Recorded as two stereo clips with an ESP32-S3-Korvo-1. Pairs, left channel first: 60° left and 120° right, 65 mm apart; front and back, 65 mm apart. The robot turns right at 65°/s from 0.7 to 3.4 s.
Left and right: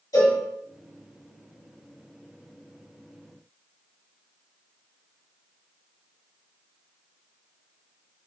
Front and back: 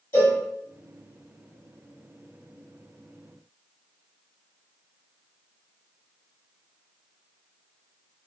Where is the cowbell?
45° left, 1.9 m.